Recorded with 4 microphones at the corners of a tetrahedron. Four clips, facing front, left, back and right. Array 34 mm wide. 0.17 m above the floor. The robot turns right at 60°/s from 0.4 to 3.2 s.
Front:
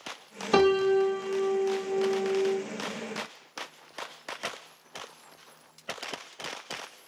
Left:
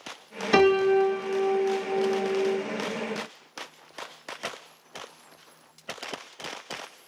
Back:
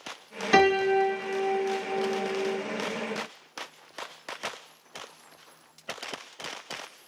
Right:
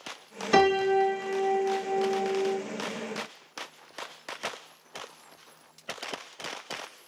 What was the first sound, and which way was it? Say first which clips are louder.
A piano: left 2 dB, back 1 dB; 170° left.